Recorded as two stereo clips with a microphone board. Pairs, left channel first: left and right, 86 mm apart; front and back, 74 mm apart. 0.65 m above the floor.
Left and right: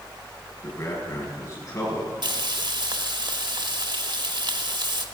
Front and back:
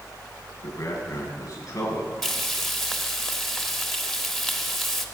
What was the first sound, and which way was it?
A man speaking, 45° left.